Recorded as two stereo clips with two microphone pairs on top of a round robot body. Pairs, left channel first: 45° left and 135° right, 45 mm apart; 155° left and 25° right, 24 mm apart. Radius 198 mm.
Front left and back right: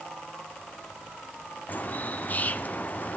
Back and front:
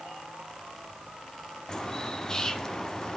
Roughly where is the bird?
Left.